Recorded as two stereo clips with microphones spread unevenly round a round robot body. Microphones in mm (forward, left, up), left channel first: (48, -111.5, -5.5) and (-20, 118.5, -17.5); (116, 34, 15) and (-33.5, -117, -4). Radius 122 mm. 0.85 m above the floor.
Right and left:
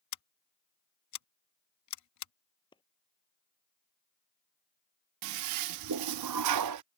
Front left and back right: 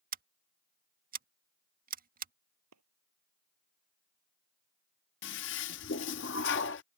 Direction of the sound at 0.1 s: 90° right.